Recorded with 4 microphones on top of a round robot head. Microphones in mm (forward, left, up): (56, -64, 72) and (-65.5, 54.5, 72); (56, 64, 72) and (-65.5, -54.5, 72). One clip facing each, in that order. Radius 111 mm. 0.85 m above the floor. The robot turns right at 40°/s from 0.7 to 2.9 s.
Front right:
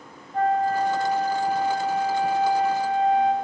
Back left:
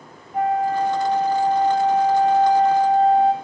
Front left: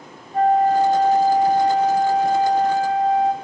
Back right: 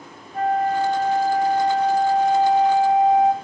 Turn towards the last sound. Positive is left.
turn(degrees=155)